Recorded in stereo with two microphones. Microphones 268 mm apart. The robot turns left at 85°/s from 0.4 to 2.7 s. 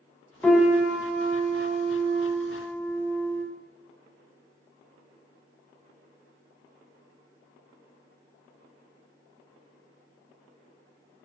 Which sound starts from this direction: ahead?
A piano, at 0.4 s.